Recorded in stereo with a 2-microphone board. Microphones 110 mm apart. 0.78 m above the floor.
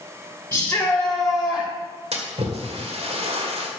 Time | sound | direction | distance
0.5 | a shout | 20° left (ahead or behind) | 3 m
2.1 | a splash | 65° right (ahead or behind) | 2 m